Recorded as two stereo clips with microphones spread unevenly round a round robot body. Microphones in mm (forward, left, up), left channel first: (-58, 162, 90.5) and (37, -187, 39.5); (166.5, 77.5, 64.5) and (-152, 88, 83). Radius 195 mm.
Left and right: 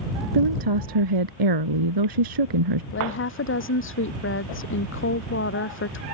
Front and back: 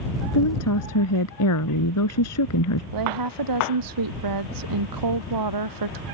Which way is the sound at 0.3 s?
45° right.